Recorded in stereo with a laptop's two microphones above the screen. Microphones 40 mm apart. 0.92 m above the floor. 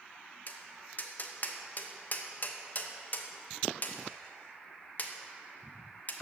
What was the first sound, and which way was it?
Tapping, 45° left (ahead or behind).